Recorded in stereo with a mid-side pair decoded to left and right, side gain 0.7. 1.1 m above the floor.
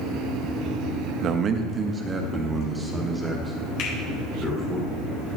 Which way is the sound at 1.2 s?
45° right.